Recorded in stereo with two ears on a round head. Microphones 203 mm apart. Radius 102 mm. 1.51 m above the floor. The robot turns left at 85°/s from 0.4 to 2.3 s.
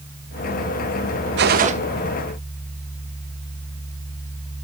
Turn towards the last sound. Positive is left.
turn(degrees=170)